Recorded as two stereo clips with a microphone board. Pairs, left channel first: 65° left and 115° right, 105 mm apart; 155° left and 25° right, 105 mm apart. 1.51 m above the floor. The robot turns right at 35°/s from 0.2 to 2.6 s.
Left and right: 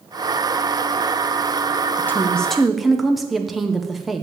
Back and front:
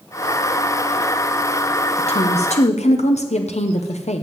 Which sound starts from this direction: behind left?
A woman speaking, at 2.0 s.